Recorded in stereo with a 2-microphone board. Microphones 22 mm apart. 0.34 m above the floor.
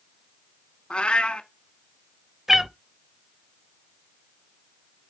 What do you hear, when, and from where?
0.9 s a cat meowing: 55° left (ahead or behind), 1.2 m
2.5 s a cat meowing: 20° right (ahead or behind), 0.6 m